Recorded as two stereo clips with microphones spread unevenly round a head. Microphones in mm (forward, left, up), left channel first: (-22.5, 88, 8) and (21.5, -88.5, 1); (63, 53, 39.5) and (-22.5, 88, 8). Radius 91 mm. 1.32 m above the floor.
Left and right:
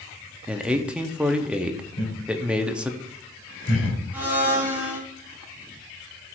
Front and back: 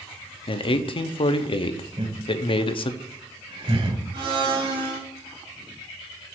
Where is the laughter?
130° left, 3 m.